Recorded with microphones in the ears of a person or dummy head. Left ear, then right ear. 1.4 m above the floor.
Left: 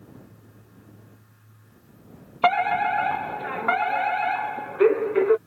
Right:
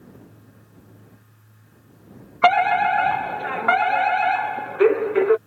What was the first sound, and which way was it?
A fire alarm, 15° right (ahead or behind).